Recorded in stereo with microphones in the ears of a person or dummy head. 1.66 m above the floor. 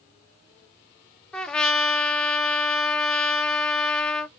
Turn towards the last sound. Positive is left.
turn(degrees=10)  # may be behind; listen again after turning